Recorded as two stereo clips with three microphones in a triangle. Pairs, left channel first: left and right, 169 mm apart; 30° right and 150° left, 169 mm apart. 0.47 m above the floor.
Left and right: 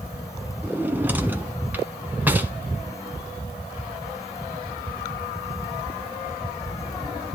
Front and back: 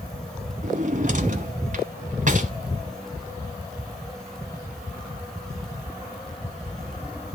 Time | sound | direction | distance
0.6 | a drawer | 170° right | 1.3 m